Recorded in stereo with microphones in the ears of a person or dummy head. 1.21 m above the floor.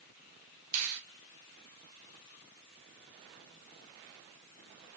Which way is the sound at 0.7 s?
80° right.